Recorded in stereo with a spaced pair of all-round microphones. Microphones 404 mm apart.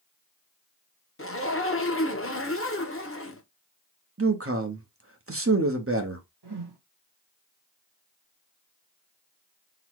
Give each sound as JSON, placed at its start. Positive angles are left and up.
{"t": 1.2, "sound": "a zipper", "side_deg": 35, "distance_m": 0.7}
{"t": 4.2, "sound": "a man speaking", "side_deg": -35, "distance_m": 0.8}
{"t": 6.4, "sound": "a whoosh", "side_deg": -80, "distance_m": 1.4}